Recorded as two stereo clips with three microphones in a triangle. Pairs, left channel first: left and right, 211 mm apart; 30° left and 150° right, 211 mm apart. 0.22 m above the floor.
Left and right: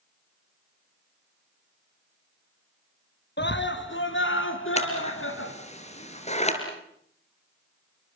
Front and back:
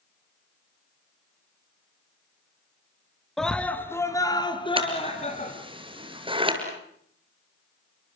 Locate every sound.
3.4 s a scream: 120° left, 2.5 m; by 5.5 s 85° left, 3.5 m
4.8 s scissors: 145° left, 4.5 m